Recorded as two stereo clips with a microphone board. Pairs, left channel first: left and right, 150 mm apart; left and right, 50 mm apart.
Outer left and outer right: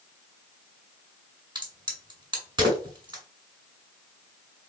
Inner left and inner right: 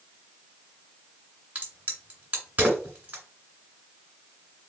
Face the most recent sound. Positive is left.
turn(degrees=-30)  # may be behind; listen again after turning